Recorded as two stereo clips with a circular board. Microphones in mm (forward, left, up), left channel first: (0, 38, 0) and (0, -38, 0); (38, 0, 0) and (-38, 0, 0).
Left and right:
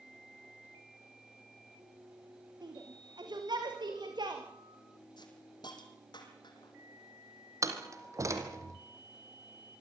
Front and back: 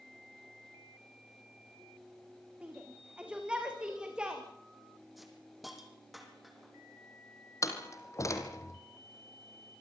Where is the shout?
105° right, 8 m; by 4.4 s 100° right, 9 m.